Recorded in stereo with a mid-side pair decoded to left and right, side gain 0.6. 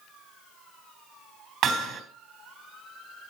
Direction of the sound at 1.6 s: 55° right.